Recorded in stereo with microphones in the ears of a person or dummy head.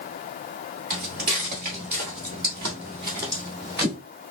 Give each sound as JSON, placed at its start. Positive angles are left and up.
{"t": 0.9, "sound": "footsteps", "side_deg": -40, "distance_m": 2.0}